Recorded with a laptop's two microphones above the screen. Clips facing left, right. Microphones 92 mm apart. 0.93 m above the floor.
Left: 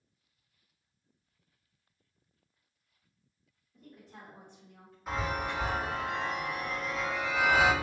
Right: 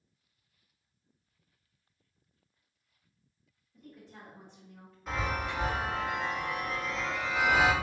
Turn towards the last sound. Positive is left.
turn(degrees=5)  # may be behind; listen again after turning